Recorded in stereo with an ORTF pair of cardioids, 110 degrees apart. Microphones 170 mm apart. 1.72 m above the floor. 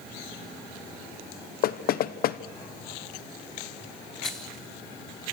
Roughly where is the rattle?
Ahead.